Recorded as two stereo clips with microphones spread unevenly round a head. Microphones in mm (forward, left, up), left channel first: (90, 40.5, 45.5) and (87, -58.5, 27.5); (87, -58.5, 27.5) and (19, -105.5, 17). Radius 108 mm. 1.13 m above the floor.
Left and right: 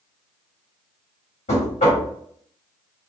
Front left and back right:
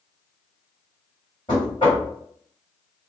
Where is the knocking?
105° left, 1.3 m.